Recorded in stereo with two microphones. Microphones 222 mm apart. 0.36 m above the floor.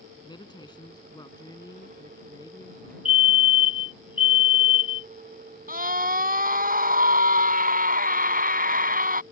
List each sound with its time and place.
0.2 s a woman speaking: 20° left (ahead or behind); by 3.0 s 15° left (ahead or behind)
3.0 s a fire alarm: 25° left (ahead or behind)
5.7 s a scream: 40° right (ahead or behind)